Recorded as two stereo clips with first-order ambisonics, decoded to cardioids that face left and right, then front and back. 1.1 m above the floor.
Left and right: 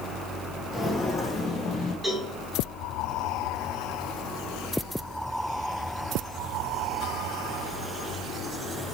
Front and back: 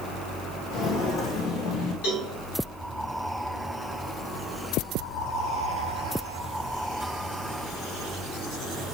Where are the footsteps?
20° left, 1.3 m; by 1.9 s 30° left, 2 m.